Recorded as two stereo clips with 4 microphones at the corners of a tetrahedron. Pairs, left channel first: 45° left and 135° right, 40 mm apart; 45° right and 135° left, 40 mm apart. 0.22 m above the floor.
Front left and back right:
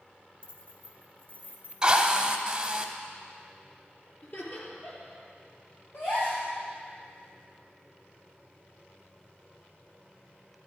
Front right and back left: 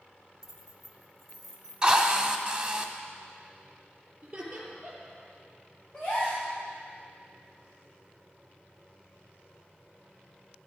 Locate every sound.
0.4 s keys jangling: 75° left, 1.1 m; by 2.8 s 20° left, 2 m
1.8 s a drill: straight behind, 1.0 m
4.2 s laughter: 65° left, 4 m
5.9 s a gasp: 20° left, 5.5 m